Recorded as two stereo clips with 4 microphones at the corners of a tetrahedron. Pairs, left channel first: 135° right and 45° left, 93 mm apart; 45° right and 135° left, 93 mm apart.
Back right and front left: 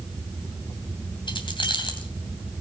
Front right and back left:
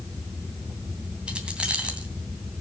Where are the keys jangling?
145° right, 2.5 m.